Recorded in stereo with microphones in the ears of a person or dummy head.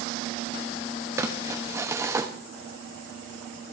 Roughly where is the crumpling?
Centre.